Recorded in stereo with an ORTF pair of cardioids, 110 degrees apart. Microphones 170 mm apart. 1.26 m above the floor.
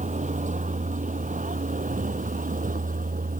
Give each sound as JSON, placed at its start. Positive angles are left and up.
{"t": 0.0, "sound": "a vehicle", "azimuth_deg": -45}